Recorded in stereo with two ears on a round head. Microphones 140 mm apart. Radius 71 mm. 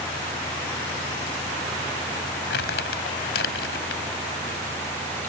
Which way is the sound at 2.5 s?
75° left (ahead or behind).